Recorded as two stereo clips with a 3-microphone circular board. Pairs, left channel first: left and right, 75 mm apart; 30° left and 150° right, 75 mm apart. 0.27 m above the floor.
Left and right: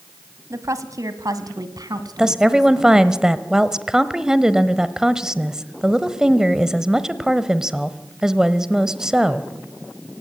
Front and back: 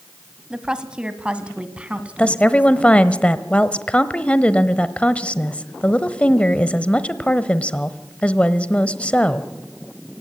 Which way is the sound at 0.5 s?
75° right.